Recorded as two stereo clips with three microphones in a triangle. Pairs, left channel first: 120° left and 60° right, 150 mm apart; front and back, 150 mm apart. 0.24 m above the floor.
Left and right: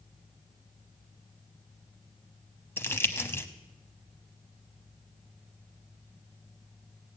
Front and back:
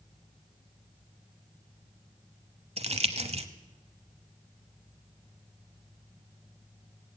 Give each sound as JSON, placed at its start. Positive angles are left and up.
{"t": 2.8, "sound": "crumpling", "azimuth_deg": -175, "distance_m": 0.9}